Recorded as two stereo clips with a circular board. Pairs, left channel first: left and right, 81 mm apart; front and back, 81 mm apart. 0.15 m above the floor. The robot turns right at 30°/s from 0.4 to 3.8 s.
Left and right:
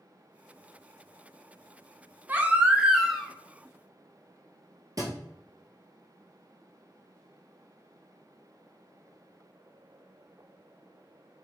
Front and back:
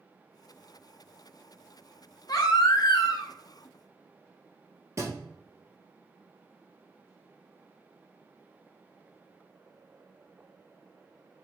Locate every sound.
2.3 s a baby crying: 30° right, 0.6 m; by 3.3 s straight ahead, 0.6 m
5.0 s a thud: 130° right, 1.4 m